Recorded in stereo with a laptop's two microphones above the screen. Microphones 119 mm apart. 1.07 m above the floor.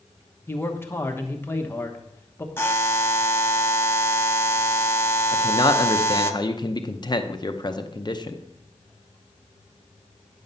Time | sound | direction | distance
0.5 | a man speaking | 20° left (ahead or behind) | 1.0 m
2.6 | a buzzer | 20° left (ahead or behind) | 1.0 m
5.3 | a man speaking | 35° left (ahead or behind) | 0.8 m